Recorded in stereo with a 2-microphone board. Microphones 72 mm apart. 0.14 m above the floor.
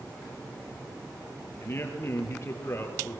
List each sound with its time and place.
1.6 s a man speaking: 35° left (ahead or behind), 3.5 m